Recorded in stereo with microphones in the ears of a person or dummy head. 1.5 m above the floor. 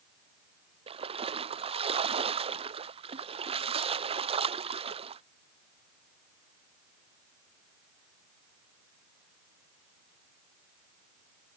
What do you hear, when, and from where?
0.9 s a splash: 35° right (ahead or behind)